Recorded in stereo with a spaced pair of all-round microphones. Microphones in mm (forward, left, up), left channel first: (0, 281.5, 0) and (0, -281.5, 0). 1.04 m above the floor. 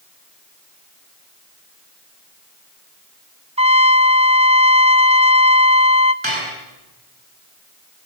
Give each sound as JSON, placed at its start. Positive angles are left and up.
{"t": 3.6, "sound": "a trumpet", "side_deg": -10, "distance_m": 0.8}
{"t": 6.2, "sound": "dishes clattering", "side_deg": -55, "distance_m": 7.5}